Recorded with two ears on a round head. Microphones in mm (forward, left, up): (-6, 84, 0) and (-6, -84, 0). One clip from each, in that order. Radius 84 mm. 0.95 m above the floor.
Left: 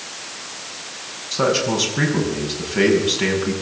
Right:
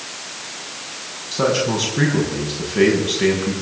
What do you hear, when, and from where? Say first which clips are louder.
1.3 s a man speaking: even; 20° left (ahead or behind), 6 m